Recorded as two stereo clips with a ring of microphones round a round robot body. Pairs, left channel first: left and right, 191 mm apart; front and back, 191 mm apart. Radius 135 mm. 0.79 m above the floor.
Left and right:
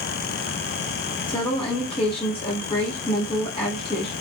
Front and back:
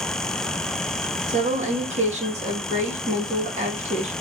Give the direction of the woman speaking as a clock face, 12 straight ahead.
7 o'clock.